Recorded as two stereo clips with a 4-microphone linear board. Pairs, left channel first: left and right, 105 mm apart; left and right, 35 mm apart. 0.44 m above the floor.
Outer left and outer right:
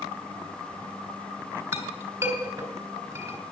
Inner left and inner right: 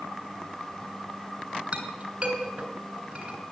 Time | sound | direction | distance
1.7 | a clink | 30° right (ahead or behind) | 3 m